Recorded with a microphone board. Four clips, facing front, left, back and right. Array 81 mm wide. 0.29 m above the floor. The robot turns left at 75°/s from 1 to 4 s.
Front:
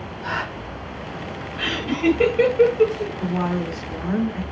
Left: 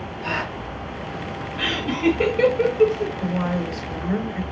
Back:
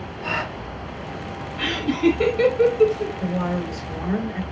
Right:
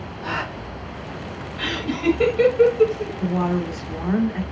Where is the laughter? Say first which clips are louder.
Left 2 dB, back 2 dB; 80° left, 1.2 m; by 3.1 s 35° right, 1.2 m.